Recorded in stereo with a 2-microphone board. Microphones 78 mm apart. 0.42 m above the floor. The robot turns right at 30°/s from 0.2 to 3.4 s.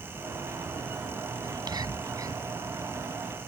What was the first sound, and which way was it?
Whispering, 70° right (ahead or behind).